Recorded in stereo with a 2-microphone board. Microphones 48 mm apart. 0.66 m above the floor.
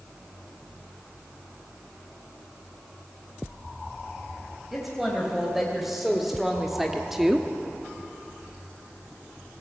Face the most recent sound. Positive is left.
turn(degrees=-5)  # may be behind; listen again after turning